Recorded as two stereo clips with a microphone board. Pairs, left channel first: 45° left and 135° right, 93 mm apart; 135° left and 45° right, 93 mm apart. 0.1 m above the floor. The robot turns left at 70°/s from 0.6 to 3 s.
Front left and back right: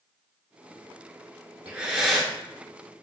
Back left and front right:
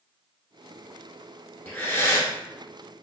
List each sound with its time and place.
1.6 s breathing: 170° left, 0.8 m; by 2.3 s 120° left, 0.8 m